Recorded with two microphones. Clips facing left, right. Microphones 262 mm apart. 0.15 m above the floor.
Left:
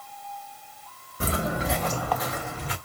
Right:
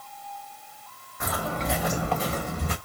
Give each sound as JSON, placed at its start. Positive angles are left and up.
{"t": 1.2, "sound": "footsteps", "side_deg": 35, "distance_m": 0.9}